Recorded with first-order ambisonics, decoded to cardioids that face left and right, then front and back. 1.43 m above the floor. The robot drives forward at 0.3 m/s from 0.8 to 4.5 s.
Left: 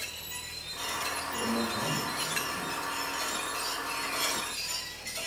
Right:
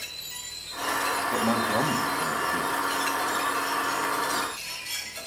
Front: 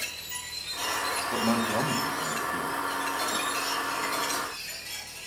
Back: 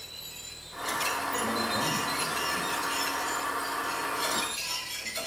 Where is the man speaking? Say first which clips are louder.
Right 7 dB, front 2 dB; 55° right, 1.6 m; by 2.8 s 70° right, 1.4 m.